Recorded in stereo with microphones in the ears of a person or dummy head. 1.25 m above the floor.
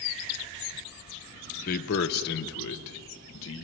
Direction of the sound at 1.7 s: 45° left (ahead or behind).